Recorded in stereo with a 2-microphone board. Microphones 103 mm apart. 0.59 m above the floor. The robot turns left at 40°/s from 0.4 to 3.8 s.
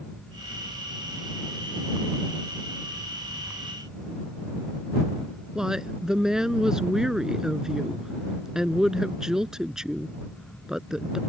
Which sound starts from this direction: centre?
A woman speaking, at 5.5 s.